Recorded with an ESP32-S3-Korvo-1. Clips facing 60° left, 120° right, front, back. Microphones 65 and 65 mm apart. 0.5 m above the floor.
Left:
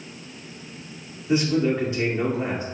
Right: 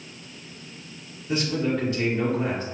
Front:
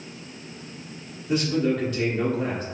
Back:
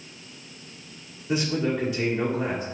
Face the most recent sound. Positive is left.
turn(degrees=100)